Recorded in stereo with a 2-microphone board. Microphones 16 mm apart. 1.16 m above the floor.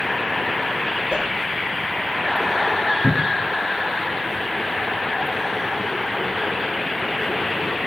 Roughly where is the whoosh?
Right.